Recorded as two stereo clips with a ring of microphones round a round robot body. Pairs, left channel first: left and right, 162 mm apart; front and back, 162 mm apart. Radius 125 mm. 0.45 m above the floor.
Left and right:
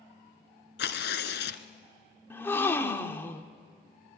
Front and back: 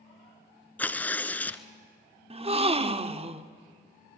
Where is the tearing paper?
80° left, 1.3 m.